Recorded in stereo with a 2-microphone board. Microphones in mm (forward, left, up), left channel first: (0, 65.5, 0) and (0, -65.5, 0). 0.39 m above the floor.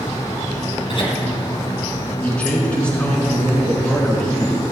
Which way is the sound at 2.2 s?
10° left (ahead or behind).